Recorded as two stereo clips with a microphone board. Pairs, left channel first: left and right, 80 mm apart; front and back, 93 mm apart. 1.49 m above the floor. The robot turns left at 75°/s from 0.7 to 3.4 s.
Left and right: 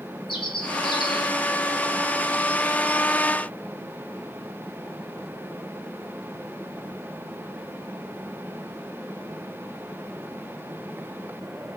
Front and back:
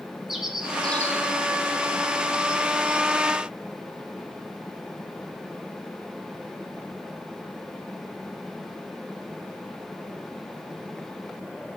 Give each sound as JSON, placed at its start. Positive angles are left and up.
{"t": 0.3, "sound": "a bird", "azimuth_deg": 95, "distance_m": 2.5}